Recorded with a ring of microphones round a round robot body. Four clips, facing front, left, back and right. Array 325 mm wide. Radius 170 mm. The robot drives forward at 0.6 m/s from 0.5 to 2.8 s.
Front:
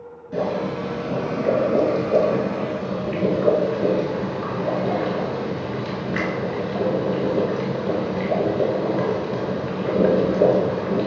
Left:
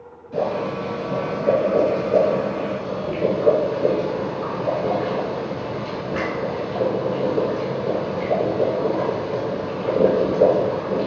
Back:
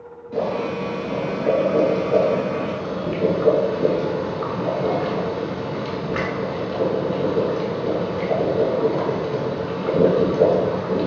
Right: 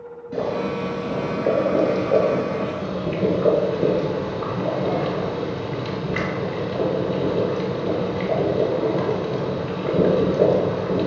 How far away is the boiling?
About 1.4 m.